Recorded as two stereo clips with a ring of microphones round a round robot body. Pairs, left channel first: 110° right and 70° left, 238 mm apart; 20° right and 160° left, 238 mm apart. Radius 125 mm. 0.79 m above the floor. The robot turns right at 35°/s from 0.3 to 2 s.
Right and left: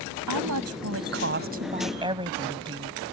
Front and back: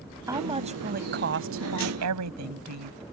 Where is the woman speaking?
80° left; by 3.0 s 140° left.